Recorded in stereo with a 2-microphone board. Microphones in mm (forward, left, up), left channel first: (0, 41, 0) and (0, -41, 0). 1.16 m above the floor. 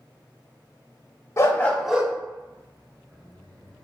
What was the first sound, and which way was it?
A dog barking, 35° left (ahead or behind).